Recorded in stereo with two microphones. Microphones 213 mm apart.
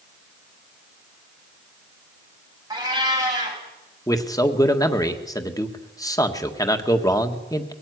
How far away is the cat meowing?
About 5.5 m.